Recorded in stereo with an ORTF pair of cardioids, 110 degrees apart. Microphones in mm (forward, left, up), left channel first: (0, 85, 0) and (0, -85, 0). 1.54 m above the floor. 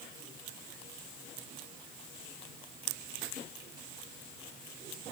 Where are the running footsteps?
No running footsteps in this recording.